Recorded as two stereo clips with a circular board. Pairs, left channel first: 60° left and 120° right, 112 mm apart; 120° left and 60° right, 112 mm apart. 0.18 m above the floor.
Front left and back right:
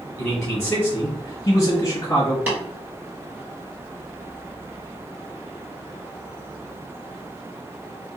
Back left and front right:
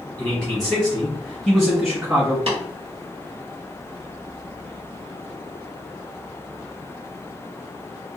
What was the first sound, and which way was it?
A man speaking, 55° left.